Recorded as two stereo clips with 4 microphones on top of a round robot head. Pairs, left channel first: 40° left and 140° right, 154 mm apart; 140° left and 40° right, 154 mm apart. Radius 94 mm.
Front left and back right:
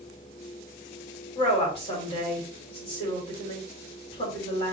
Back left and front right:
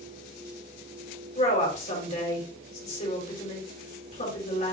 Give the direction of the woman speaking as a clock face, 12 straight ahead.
9 o'clock.